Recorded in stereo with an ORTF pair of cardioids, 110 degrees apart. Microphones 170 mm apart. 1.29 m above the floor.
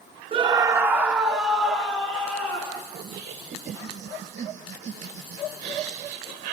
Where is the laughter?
45° right, 0.9 m.